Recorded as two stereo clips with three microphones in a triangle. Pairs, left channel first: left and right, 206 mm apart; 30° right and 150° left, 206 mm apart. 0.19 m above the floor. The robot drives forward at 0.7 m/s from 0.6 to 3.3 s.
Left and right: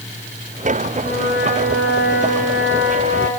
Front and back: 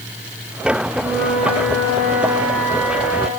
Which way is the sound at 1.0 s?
55° left.